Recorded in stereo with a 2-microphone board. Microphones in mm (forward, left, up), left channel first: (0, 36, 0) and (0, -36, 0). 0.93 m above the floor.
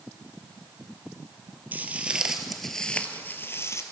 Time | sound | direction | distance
1.7 | footsteps | 25° right (ahead or behind) | 1.2 m